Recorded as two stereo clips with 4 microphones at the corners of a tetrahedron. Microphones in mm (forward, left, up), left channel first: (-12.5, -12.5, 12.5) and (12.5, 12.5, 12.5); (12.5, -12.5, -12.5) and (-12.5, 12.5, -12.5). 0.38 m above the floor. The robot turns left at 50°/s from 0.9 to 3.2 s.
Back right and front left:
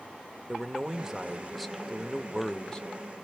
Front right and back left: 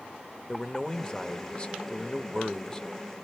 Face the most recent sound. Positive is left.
turn(degrees=-120)